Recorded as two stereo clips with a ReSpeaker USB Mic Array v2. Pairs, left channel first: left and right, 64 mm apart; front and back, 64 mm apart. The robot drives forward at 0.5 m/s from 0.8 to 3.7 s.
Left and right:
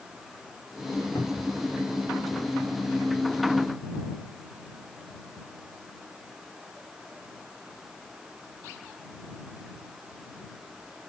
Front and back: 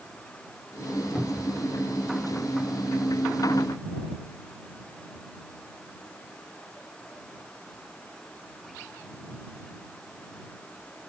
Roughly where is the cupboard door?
Left.